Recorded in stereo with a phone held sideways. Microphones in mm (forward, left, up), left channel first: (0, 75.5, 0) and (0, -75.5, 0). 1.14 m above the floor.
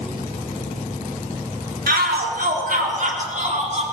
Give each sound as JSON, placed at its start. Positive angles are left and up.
{"t": 1.9, "sound": "a shout", "side_deg": -80, "distance_m": 2.0}